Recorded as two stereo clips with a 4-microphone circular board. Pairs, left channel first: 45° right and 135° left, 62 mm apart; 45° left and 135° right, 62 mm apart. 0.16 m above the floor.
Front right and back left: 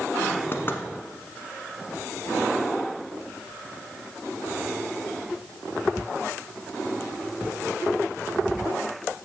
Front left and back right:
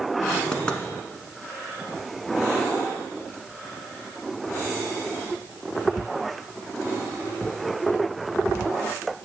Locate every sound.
0.5 s knocking: 25° right, 1.1 m